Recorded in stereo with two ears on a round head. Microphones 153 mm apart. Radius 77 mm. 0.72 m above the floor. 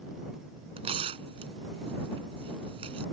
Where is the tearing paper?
30° right (ahead or behind).